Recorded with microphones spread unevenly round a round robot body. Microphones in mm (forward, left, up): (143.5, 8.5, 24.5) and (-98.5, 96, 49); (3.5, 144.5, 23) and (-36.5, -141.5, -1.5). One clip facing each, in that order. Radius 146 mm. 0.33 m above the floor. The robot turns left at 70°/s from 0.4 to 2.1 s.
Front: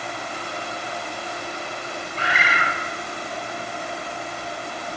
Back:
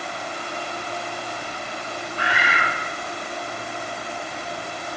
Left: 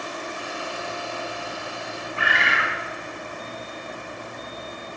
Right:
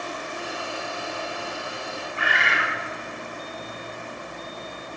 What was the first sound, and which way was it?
A bird, 85° left.